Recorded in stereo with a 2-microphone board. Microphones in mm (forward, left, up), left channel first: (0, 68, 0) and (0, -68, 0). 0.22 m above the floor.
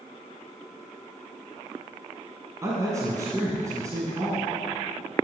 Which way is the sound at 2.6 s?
25° right (ahead or behind).